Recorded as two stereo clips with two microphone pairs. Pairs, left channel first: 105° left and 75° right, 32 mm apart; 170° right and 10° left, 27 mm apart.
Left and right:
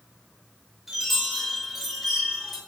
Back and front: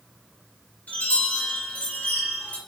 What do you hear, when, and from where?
0.9 s a chime: 160° right, 2.5 m